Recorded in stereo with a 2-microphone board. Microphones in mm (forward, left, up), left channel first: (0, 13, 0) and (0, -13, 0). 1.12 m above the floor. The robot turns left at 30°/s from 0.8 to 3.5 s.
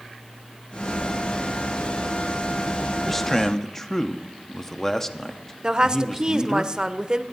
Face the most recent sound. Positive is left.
turn(degrees=-30)  # may be behind; listen again after turning